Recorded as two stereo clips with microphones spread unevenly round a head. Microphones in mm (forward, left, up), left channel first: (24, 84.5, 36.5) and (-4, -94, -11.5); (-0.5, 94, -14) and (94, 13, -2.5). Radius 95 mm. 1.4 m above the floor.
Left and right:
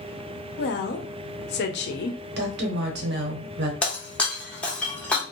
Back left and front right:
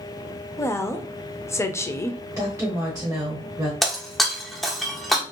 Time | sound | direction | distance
0.6 | a woman speaking | 70° left | 0.6 m
2.4 | a woman speaking | 120° right | 0.9 m
3.8 | breaking glass | 40° left | 0.7 m